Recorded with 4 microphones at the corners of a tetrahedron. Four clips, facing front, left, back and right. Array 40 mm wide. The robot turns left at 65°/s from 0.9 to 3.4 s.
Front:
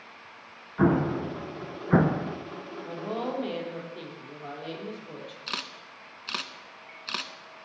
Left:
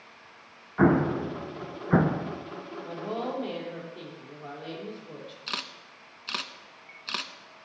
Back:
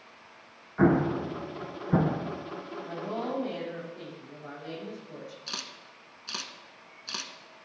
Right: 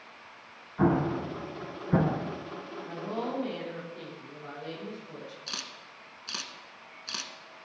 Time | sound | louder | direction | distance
0.8 | an explosion | left 4 dB, even | 110° left | 0.6 m
2.8 | a woman speaking | left 2 dB, front 2 dB | 55° left | 4 m
5.5 | a camera shutter | left 5 dB, front 4 dB | 45° left | 0.5 m